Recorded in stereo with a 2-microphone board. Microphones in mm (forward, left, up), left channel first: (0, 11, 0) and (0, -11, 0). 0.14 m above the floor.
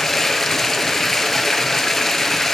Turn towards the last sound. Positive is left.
turn(degrees=20)  # may be behind; listen again after turning